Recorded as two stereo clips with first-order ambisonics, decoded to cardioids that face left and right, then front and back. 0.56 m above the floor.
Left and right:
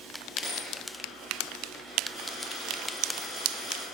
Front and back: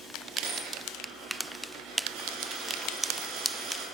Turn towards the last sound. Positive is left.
turn(degrees=165)